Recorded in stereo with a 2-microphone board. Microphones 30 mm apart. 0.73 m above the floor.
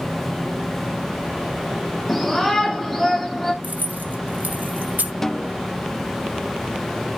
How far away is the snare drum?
About 0.5 m.